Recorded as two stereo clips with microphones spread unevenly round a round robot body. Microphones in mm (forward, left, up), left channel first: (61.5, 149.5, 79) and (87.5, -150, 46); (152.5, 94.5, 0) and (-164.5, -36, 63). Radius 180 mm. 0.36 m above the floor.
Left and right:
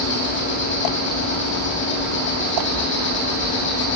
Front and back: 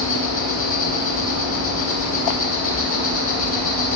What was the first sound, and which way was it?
An insect, 50° left.